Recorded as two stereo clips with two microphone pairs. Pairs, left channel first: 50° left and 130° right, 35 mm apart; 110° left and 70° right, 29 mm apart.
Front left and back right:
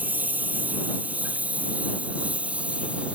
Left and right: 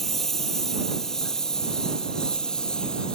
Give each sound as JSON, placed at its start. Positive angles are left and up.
{"t": 0.0, "sound": "a lawn mower", "azimuth_deg": -170}